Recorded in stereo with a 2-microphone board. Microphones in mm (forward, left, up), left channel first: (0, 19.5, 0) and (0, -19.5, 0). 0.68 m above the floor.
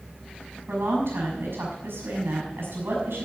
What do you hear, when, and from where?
0.7 s a woman speaking: 70° right (ahead or behind), 6 m